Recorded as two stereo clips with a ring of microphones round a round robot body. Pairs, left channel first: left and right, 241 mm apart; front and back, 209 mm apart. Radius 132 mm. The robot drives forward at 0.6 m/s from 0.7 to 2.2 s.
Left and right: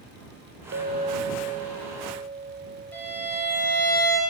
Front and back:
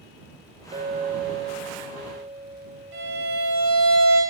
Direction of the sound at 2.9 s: 170° left.